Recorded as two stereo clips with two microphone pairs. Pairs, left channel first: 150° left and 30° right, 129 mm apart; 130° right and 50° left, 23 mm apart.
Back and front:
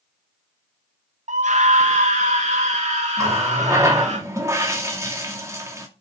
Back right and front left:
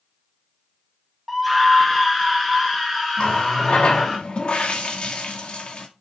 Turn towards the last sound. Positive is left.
turn(degrees=-95)